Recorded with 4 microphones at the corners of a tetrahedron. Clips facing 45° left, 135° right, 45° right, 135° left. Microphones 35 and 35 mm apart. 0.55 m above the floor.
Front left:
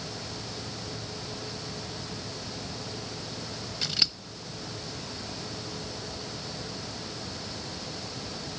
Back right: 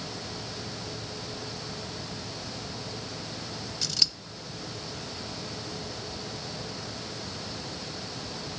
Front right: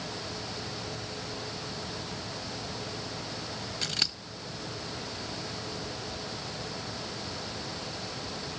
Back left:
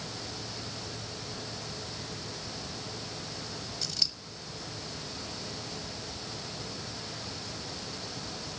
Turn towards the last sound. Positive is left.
turn(degrees=-10)